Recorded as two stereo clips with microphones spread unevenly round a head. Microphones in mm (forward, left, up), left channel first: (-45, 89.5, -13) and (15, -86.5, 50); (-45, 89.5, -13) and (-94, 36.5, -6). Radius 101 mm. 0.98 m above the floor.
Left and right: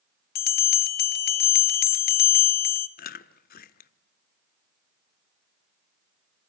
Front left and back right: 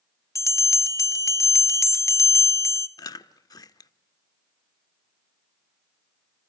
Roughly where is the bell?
Left.